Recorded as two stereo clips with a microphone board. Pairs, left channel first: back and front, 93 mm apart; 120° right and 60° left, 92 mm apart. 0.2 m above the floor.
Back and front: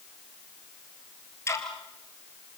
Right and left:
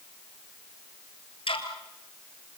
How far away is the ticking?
About 2.5 m.